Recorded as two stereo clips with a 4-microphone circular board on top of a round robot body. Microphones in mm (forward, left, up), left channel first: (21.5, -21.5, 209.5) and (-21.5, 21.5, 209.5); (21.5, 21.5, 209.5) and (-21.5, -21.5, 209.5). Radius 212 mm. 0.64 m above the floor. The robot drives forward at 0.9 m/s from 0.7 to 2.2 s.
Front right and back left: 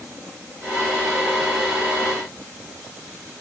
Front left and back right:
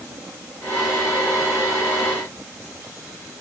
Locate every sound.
Only background noise.